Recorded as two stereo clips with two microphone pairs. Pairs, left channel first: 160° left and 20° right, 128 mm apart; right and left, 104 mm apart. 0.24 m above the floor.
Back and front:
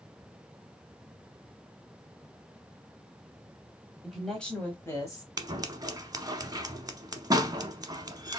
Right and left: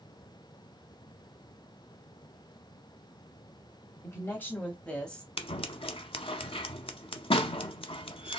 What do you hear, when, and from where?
4.0 s a woman speaking: 100° right, 1.2 m; by 5.3 s 170° right, 1.3 m
5.4 s scissors: 75° right, 0.6 m